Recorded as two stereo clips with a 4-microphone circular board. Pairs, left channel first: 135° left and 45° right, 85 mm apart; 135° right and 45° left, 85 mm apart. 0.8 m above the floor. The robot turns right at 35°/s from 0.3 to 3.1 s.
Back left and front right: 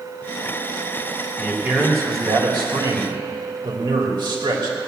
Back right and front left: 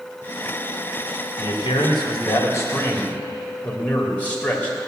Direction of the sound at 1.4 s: 125° right.